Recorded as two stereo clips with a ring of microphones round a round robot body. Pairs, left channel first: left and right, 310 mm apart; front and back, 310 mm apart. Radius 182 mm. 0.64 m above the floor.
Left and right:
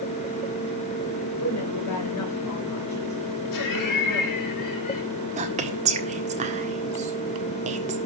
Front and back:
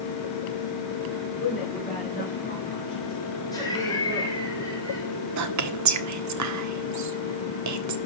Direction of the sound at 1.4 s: 60° left.